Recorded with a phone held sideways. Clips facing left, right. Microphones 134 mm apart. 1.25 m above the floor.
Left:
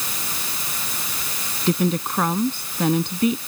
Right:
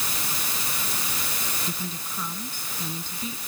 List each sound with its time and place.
1.7 s a woman speaking: 75° left (ahead or behind)